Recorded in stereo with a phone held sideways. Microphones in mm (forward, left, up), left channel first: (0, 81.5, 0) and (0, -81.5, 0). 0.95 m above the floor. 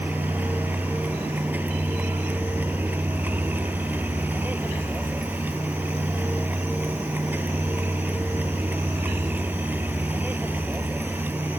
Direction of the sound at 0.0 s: 10° right (ahead or behind).